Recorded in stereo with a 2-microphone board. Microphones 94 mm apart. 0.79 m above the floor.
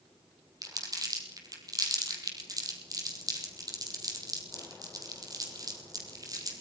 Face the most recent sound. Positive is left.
turn(degrees=-40)  # may be behind; listen again after turning